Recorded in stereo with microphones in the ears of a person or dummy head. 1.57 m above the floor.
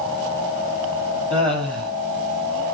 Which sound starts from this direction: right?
Laughter, at 1.3 s.